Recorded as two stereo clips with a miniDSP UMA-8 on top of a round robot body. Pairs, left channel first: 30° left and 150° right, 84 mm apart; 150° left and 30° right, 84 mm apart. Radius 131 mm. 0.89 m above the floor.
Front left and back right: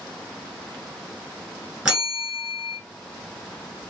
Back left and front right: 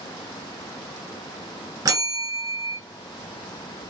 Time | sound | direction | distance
1.9 | a bell | 70° right | 1.6 m